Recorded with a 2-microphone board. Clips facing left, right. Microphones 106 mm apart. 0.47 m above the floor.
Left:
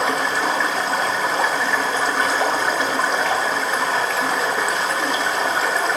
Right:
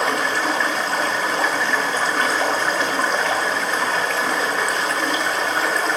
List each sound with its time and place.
0.0 s running water: 5° left (ahead or behind), 1.5 m